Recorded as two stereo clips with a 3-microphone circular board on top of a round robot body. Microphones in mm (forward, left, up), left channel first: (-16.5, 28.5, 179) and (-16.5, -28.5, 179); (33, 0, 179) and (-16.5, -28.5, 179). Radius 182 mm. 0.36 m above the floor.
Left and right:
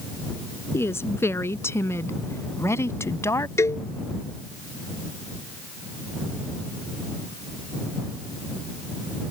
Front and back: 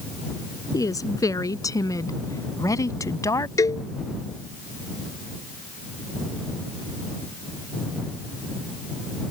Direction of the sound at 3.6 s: 50° left.